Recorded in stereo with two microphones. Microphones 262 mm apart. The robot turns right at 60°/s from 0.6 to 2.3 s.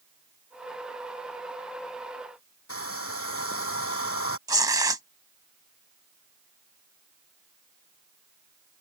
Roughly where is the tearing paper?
Centre.